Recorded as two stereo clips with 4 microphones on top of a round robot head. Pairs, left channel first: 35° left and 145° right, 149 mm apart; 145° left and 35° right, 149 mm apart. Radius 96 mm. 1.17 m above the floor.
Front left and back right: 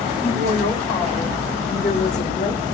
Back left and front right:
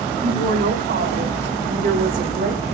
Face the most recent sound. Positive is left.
turn(degrees=0)